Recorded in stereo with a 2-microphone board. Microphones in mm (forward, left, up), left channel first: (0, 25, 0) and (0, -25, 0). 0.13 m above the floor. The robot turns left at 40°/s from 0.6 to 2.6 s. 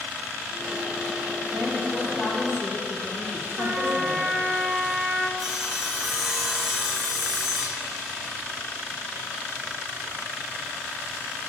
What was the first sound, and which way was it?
A woman speaking, 155° right.